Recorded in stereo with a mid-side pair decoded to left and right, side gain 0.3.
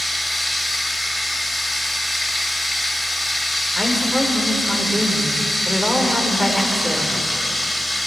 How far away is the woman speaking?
About 5 m.